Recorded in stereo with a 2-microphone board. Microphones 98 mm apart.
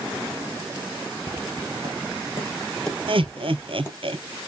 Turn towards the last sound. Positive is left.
turn(degrees=-65)  # may be behind; listen again after turning